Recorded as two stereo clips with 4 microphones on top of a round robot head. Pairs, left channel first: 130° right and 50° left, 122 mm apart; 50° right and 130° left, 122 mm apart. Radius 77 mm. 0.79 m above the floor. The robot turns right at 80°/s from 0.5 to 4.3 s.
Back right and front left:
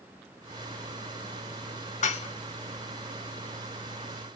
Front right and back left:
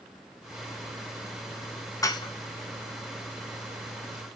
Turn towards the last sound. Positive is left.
turn(degrees=65)